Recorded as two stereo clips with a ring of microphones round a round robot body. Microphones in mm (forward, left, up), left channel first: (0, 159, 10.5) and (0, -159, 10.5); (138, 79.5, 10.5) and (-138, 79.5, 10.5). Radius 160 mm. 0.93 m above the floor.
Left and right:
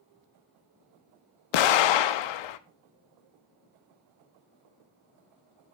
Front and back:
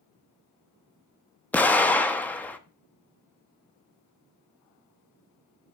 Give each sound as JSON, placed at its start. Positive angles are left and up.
{"t": 1.5, "sound": "an explosion", "azimuth_deg": 85, "distance_m": 0.6}